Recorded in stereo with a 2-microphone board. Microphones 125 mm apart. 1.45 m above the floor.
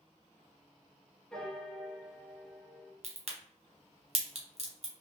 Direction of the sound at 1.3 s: 5° left (ahead or behind).